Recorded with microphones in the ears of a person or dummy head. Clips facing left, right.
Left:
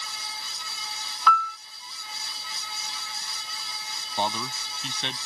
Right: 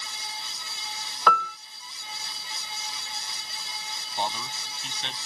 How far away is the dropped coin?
No dropped coin in this recording.